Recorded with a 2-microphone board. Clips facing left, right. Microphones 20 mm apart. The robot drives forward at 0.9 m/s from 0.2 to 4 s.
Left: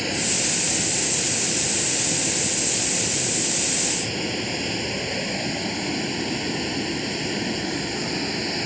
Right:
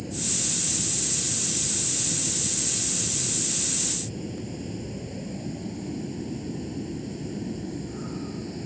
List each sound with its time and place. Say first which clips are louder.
0.0 s running water: left 7 dB; 80° left; by 8.7 s 70° left (ahead or behind)